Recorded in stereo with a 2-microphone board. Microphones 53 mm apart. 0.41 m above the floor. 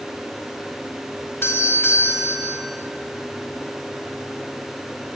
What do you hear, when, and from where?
1.4 s a doorbell: 50° left (ahead or behind), 2.5 m